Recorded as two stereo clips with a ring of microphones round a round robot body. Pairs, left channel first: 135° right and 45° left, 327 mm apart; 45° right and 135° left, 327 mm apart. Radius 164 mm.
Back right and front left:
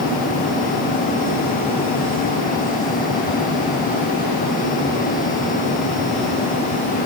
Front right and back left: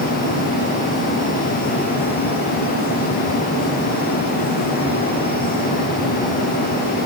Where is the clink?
I don't hear a clink.